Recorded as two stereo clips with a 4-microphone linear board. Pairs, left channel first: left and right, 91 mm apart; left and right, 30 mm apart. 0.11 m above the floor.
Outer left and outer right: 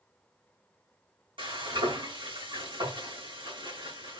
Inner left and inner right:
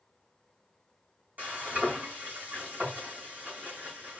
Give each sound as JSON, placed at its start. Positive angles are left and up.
{"t": 1.4, "sound": "frying", "side_deg": -65, "distance_m": 3.5}